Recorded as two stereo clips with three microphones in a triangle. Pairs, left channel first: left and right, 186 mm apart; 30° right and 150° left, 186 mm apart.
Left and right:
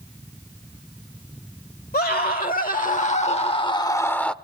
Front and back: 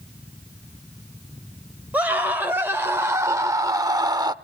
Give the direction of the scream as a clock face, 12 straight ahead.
10 o'clock.